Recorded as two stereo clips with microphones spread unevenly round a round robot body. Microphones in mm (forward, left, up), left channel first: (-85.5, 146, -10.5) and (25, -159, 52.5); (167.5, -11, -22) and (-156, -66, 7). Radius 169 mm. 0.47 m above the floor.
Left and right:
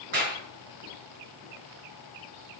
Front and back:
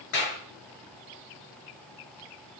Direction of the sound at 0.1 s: 5° right.